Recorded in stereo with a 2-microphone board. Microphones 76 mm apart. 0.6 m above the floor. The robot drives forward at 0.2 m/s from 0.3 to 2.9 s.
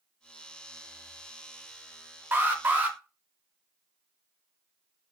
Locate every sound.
2.3 s an alarm: 25° right (ahead or behind), 0.5 m; by 3.0 s 20° right (ahead or behind), 0.6 m